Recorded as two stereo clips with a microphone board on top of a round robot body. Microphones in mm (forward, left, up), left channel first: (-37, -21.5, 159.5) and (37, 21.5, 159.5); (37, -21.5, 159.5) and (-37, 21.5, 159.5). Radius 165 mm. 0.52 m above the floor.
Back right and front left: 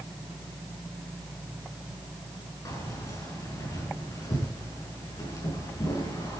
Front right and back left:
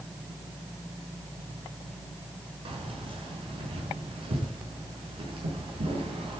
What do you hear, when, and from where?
2.6 s keys jangling: 160° left, 5.5 m